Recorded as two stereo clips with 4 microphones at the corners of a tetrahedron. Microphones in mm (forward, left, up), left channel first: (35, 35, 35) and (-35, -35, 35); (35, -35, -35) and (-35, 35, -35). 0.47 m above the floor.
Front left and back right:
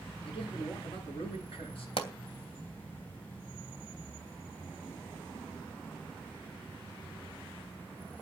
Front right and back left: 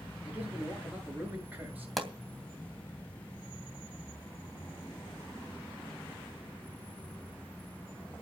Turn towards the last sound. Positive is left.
turn(degrees=45)